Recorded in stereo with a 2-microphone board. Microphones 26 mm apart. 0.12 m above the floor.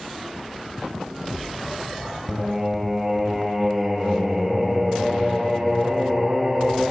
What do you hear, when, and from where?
2.3 s singing: 5° right (ahead or behind), 2.5 m